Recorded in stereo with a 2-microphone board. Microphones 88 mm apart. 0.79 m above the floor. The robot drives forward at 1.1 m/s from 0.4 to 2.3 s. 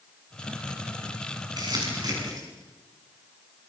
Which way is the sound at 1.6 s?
50° right (ahead or behind).